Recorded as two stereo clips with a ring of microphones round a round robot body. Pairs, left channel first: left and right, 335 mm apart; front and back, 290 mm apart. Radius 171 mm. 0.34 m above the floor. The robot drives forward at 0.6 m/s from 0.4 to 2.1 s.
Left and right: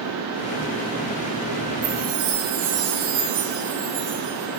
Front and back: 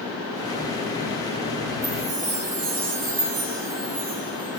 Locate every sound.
1.8 s a chime: 135° right, 3.5 m